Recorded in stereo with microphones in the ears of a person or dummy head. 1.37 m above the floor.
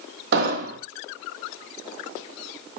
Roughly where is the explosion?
Right.